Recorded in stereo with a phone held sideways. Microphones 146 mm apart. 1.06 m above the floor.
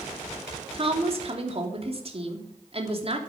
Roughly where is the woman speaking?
Right.